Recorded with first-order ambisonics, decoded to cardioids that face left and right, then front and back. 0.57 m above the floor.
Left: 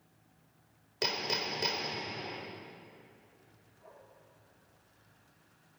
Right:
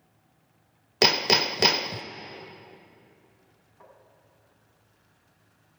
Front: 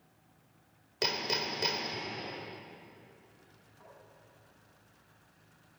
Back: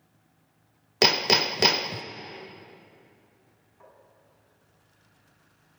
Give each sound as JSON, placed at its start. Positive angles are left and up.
{"t": 1.0, "sound": "hammering", "azimuth_deg": -135, "distance_m": 0.5}
{"t": 3.8, "sound": "tapping", "azimuth_deg": -110, "distance_m": 5.0}